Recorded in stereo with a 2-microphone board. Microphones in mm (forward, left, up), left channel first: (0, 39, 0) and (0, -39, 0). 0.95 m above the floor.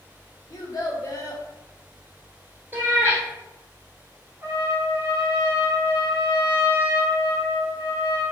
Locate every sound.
0.5 s a child speaking: 45° left (ahead or behind), 0.9 m
2.7 s a cat meowing: 30° right (ahead or behind), 1.6 m
4.4 s a trumpet: 30° right (ahead or behind), 1.3 m